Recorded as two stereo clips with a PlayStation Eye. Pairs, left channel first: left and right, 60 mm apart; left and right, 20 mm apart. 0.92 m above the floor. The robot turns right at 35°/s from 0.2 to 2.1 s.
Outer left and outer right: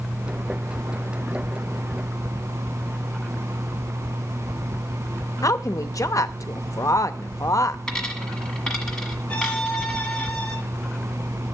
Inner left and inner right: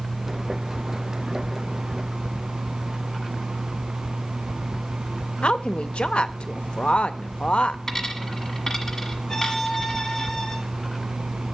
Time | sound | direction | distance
5.4 | a woman speaking | 65° left (ahead or behind) | 0.7 m
7.9 | a dropped coin | 10° left (ahead or behind) | 1.4 m
9.3 | a violin | 20° left (ahead or behind) | 2.0 m